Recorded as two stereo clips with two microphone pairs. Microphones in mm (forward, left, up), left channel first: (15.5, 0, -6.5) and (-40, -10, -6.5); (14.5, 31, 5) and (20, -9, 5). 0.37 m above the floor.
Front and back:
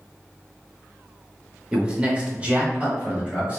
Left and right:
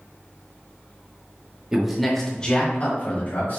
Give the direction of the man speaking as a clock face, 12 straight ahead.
4 o'clock.